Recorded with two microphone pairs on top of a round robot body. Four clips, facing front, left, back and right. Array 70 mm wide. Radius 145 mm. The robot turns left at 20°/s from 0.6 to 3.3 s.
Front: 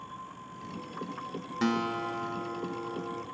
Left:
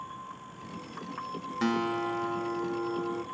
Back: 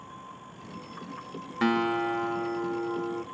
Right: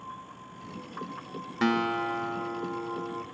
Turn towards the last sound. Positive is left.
turn(degrees=175)